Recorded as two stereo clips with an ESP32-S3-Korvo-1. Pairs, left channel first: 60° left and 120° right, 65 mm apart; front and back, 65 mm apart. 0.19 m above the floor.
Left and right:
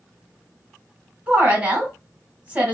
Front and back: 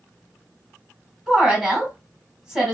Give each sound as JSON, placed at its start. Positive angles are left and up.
{"t": 1.3, "sound": "a woman speaking", "azimuth_deg": -120, "distance_m": 1.5}